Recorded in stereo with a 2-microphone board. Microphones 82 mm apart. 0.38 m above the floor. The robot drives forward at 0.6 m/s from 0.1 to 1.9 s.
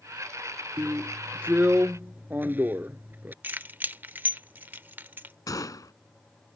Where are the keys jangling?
25° right (ahead or behind).